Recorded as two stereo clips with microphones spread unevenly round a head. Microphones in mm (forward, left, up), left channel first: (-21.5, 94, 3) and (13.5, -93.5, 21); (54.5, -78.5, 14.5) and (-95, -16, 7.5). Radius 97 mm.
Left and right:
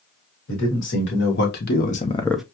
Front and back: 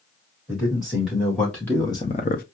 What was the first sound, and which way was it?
A man speaking, 70° left.